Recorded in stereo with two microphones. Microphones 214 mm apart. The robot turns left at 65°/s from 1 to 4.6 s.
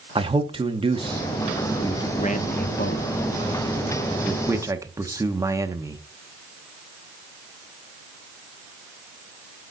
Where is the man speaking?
25° right (ahead or behind), 0.9 m; by 6.0 s 15° right (ahead or behind), 0.9 m.